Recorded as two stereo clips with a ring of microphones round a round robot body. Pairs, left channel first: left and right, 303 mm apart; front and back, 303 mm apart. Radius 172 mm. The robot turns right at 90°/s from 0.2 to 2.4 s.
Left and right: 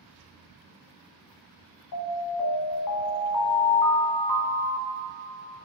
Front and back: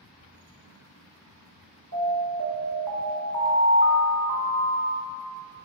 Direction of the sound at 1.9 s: 55° left.